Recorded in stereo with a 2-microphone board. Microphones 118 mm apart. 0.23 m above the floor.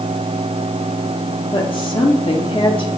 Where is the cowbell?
No cowbell in this recording.